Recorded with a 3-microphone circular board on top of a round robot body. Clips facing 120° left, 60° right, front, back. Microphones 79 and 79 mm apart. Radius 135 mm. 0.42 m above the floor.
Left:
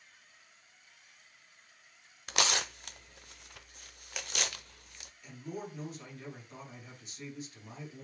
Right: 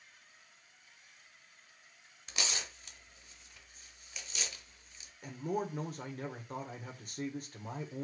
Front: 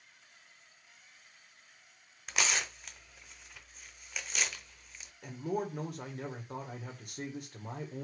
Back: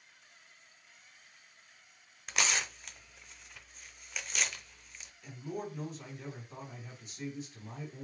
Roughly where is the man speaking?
Ahead right.